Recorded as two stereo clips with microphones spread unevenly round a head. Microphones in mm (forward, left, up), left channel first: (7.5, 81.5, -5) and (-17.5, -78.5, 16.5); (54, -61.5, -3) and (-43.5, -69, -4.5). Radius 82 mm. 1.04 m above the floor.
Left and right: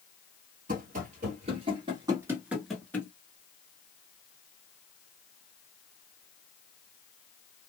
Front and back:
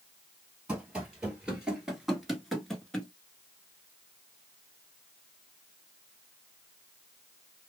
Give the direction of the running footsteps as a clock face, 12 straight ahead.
3 o'clock.